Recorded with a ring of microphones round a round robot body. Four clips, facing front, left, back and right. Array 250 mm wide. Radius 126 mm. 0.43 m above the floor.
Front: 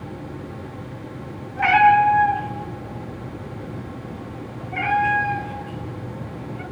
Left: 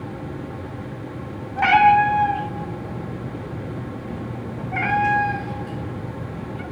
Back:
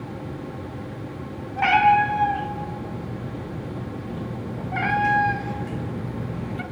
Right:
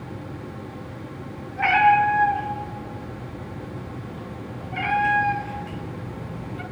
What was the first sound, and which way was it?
A cat meowing, 115° left.